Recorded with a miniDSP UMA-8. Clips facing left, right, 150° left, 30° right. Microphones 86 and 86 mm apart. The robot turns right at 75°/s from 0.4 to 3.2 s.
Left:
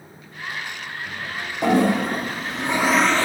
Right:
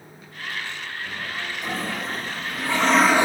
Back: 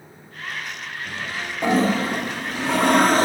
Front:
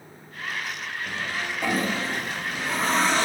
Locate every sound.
1.6 s a toilet flushing: 75° left, 0.6 m; by 3.2 s 165° right, 0.6 m